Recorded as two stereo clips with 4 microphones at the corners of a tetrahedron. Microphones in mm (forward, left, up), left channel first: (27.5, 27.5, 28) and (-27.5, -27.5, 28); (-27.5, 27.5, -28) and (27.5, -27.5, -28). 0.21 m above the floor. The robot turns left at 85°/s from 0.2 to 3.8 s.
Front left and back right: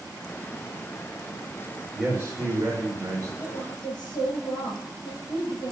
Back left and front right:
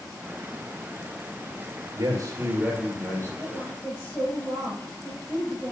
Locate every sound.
1.9 s a man speaking: 65° right, 3 m; by 3.3 s straight behind, 3 m
3.4 s a woman speaking: 90° left, 5.5 m; by 5.7 s 55° left, 5.5 m